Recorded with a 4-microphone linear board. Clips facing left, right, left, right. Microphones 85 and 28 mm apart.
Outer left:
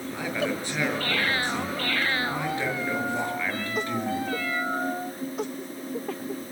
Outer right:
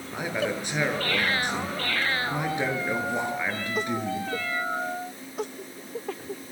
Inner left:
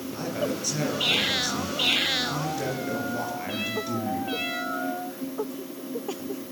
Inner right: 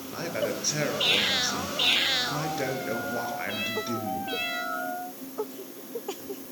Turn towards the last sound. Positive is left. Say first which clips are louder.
# outer right 1 dB, even
turn(degrees=-20)  # may be behind; listen again after turning